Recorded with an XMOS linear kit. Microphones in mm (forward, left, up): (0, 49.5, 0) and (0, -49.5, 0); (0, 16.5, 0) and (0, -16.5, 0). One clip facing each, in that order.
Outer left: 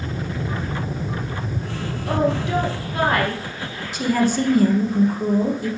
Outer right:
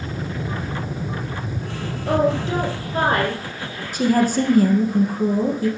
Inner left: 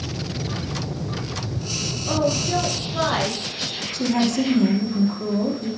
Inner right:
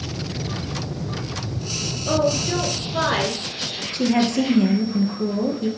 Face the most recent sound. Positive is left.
turn(degrees=-45)  # may be behind; listen again after turning